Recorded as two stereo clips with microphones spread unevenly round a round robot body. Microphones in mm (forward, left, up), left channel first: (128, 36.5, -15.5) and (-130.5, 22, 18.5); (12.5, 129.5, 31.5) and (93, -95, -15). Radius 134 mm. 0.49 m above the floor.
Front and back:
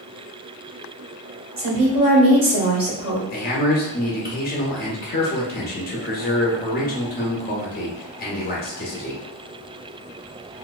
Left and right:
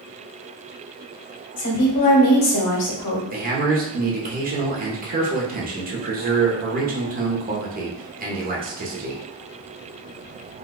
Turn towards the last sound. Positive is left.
turn(degrees=-35)